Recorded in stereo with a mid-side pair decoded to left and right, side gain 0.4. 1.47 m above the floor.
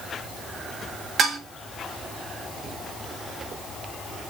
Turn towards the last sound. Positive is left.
turn(degrees=-60)